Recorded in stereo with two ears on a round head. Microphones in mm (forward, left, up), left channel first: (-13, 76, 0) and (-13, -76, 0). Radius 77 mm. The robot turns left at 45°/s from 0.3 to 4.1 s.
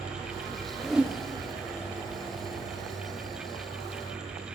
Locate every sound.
0.8 s a whoosh: centre (ahead or behind), 0.6 m; by 1.2 s 15° right (ahead or behind), 0.6 m